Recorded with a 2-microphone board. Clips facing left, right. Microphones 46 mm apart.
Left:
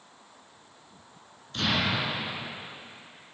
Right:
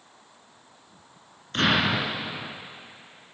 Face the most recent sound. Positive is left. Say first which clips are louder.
# right 5 dB
turn(degrees=-50)  # may be behind; listen again after turning